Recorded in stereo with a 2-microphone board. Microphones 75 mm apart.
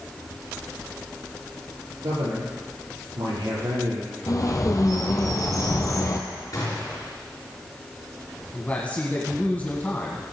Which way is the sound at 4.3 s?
50° left (ahead or behind).